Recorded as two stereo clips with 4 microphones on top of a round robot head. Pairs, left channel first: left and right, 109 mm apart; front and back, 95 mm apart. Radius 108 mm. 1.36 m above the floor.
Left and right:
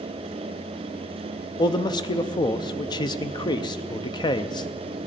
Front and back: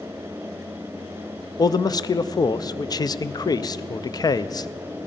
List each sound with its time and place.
1.6 s a man speaking: 45° left, 0.5 m